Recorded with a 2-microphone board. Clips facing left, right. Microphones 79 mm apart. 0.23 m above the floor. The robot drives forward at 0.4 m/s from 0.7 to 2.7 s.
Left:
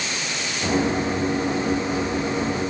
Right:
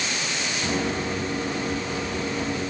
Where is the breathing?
I don't hear breathing.